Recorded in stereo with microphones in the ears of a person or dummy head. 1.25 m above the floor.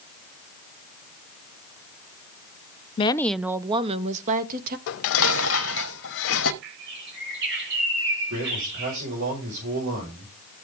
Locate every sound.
3.0 s a woman speaking: 30° left (ahead or behind), 0.5 m; by 4.8 s 50° right (ahead or behind), 1.4 m
4.9 s dishes clattering: 70° left (ahead or behind), 1.0 m
6.6 s a bird: 60° right (ahead or behind), 4 m
8.3 s a man speaking: 70° right (ahead or behind), 5.5 m